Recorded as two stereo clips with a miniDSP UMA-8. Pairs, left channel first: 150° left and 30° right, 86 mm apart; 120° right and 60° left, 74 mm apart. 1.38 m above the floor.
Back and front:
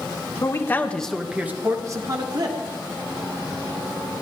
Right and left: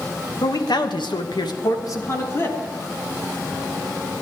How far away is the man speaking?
About 1.5 m.